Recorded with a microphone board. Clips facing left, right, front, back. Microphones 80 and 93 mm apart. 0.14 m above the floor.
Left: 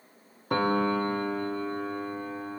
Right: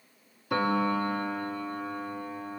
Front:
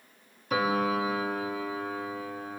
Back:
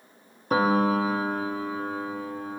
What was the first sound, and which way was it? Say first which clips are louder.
A piano: left 1 dB, back 5 dB; 130° left.